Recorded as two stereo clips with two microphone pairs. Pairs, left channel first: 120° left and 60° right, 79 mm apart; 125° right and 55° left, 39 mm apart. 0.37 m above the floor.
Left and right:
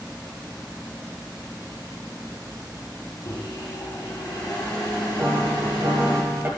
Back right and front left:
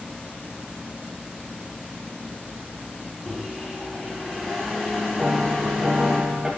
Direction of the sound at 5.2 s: Straight ahead.